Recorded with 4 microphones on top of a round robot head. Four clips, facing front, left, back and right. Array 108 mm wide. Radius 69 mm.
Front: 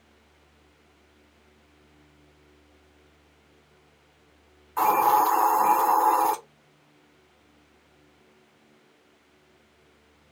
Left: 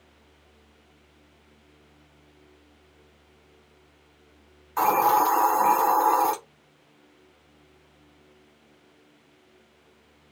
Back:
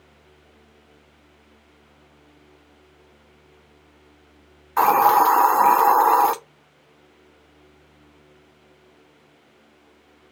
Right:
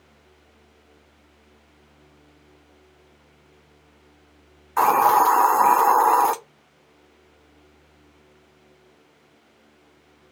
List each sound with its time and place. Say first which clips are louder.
4.8 s a hiss: right 4 dB, back 5 dB; 150° right, 0.7 m